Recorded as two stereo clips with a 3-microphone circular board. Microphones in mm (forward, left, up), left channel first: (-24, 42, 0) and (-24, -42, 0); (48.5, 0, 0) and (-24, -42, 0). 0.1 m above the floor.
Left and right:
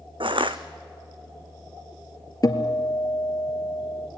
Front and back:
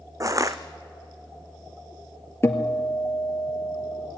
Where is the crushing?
100° right, 1.2 m.